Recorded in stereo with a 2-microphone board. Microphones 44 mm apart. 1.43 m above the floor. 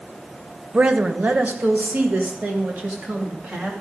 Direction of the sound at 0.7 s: 30° right (ahead or behind).